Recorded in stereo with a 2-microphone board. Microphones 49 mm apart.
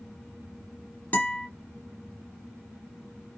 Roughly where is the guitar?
Left.